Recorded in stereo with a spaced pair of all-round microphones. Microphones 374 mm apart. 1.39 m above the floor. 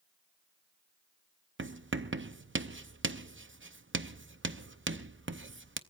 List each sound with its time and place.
1.6 s writing: 30° right (ahead or behind), 0.6 m